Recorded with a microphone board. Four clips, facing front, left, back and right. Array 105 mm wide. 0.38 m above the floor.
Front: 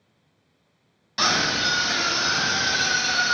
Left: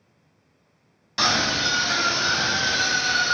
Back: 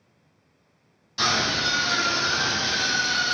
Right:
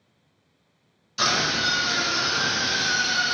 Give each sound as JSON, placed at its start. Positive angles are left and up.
{"t": 1.2, "sound": "a scream", "azimuth_deg": 60, "distance_m": 2.5}